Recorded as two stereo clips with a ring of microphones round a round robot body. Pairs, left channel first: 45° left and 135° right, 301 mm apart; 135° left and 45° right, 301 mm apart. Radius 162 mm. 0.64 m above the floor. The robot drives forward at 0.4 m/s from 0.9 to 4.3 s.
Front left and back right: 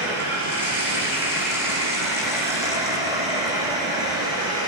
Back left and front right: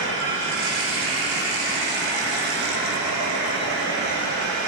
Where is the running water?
50° right, 9.5 m; by 4.7 s 60° right, 8.5 m.